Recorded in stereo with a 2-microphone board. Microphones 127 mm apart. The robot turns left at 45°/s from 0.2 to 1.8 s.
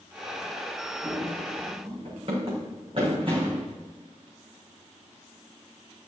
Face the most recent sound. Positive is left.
turn(degrees=-40)  # may be behind; listen again after turning